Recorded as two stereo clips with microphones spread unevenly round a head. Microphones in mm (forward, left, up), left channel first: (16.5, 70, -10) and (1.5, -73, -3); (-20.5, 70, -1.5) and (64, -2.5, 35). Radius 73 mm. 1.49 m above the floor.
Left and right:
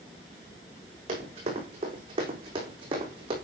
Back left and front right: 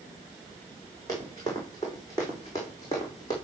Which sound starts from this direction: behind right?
Running footsteps, at 1.1 s.